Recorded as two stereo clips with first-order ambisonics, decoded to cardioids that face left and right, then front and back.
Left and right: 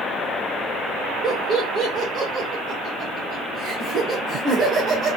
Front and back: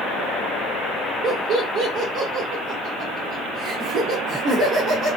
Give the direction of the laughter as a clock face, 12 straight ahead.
5 o'clock.